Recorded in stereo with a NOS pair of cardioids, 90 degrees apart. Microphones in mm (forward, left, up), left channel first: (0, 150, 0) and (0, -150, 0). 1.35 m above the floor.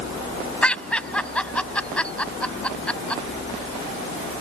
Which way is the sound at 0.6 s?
5° left.